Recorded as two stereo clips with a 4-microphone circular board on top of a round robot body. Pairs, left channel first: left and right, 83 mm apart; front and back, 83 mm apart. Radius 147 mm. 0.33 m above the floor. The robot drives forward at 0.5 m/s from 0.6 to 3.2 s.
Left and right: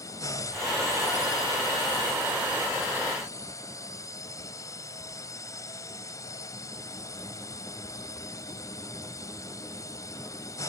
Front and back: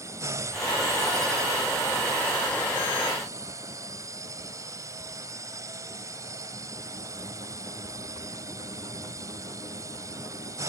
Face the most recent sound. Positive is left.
turn(degrees=135)